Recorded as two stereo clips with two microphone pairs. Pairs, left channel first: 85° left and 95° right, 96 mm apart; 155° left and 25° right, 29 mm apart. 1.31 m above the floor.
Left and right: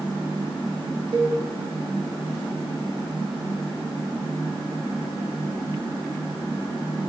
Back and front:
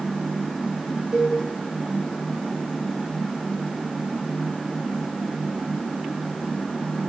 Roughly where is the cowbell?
Right.